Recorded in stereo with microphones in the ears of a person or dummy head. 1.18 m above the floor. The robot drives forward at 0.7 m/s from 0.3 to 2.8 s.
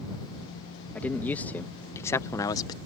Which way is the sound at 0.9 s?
10° left (ahead or behind).